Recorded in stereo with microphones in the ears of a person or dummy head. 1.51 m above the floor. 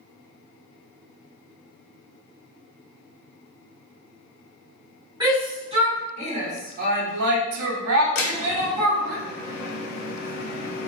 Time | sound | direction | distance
5.2 | a shout | 20° right (ahead or behind) | 1.5 m
8.2 | a door slam | 55° left (ahead or behind) | 1.3 m